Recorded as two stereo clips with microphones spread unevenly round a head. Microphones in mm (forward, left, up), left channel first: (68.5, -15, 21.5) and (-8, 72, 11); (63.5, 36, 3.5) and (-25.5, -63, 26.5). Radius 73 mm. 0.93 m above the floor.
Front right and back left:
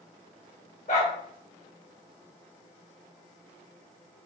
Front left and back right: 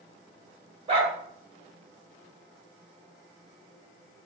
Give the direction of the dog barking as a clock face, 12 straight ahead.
3 o'clock.